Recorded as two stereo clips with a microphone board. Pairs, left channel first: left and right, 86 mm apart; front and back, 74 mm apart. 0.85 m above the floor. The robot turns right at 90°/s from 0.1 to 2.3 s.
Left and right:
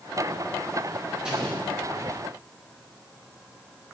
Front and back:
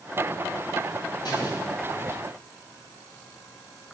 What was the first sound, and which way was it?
An explosion, 10° right.